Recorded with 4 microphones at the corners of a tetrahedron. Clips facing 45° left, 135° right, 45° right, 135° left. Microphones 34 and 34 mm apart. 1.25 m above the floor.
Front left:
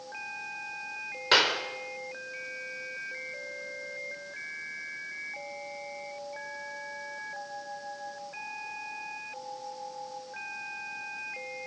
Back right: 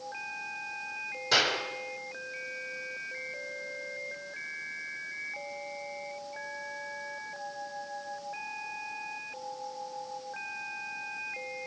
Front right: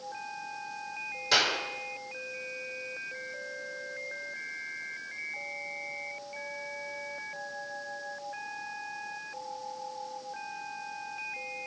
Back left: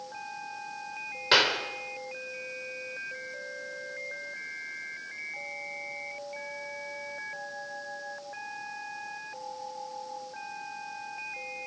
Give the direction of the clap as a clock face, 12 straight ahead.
9 o'clock.